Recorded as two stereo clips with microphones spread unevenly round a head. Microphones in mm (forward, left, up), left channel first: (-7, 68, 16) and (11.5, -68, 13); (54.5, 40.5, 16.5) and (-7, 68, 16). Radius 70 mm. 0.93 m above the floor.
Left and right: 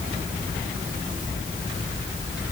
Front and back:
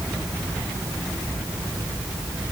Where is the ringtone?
No ringtone in this recording.